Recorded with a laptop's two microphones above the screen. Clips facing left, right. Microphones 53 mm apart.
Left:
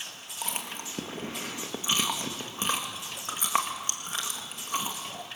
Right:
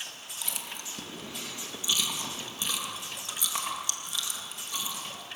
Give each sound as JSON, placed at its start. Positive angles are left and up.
{"t": 0.4, "sound": "chewing", "side_deg": 40, "distance_m": 1.9}